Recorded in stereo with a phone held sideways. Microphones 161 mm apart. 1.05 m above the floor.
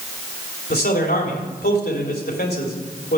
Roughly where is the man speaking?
Left.